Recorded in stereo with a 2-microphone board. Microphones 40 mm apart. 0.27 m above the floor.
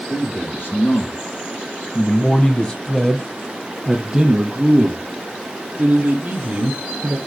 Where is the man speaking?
70° left (ahead or behind), 3.5 m; by 7.2 s 65° right (ahead or behind), 4 m.